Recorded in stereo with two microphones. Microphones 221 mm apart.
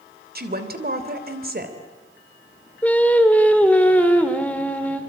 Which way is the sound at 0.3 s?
45° right (ahead or behind).